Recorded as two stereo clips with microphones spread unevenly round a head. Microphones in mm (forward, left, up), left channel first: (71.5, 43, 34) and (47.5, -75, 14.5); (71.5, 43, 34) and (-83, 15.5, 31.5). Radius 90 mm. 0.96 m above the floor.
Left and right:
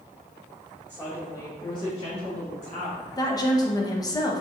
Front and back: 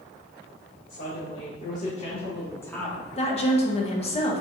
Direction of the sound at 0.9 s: Straight ahead.